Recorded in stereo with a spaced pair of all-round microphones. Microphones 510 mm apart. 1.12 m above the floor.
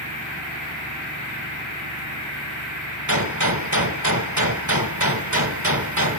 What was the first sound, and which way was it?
A gunshot, 35° right (ahead or behind).